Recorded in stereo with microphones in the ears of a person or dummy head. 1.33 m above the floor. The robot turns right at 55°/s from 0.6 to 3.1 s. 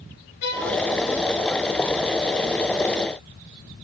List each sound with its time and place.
0.4 s a violin: 70° left (ahead or behind), 4.5 m; by 0.7 s 75° left (ahead or behind), 4.5 m